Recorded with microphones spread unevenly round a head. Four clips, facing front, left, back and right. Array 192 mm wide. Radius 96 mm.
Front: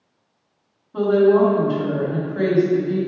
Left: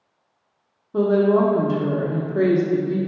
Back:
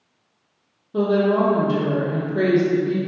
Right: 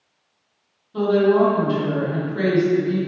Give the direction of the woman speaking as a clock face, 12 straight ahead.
8 o'clock.